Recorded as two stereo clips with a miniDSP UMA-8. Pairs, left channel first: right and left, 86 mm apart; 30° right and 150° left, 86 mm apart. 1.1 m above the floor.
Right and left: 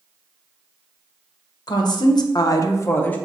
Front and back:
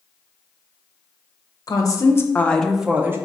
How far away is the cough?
I don't hear a cough.